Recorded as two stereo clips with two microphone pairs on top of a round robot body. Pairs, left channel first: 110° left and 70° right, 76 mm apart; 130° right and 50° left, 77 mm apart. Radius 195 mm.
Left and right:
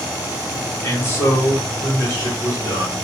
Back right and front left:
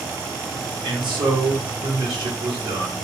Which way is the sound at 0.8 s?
55° left.